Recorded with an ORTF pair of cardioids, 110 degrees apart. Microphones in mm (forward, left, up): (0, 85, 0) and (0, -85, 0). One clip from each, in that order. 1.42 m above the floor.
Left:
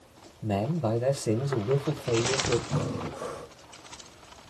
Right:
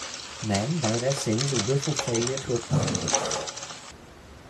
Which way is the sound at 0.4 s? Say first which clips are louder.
Right 1 dB; straight ahead.